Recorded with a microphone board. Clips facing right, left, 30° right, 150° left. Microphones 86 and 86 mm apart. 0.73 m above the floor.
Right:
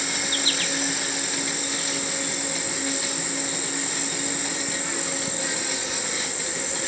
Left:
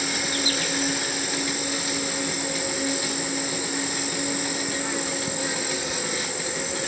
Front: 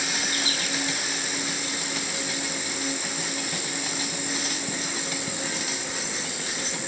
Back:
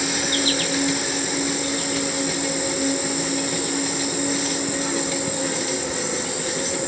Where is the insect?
165° left, 2.5 m.